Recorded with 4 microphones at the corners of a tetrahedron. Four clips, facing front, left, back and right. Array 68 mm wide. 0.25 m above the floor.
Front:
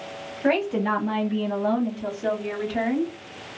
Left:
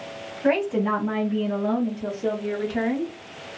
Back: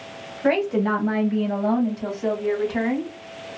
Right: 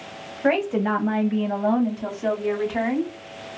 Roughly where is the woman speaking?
Right.